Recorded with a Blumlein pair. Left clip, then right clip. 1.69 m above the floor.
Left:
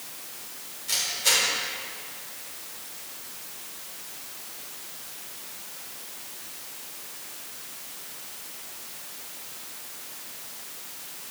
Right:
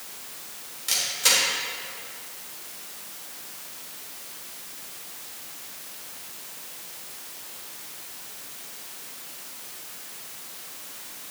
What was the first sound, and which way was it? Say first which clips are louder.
A camera shutter: right 2 dB; 30° right.